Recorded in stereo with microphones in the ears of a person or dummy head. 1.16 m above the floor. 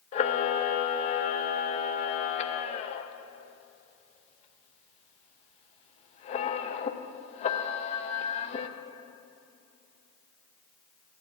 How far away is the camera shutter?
About 0.8 m.